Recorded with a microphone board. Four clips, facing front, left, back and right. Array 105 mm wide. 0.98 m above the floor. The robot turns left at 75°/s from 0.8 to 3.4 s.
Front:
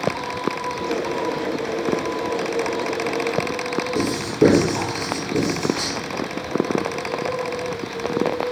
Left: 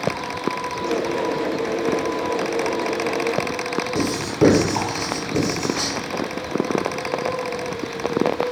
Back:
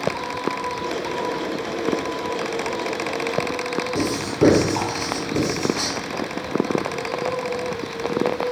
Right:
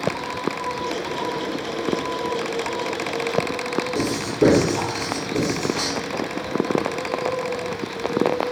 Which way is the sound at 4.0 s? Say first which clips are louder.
Left 2 dB, front 2 dB; 115° left.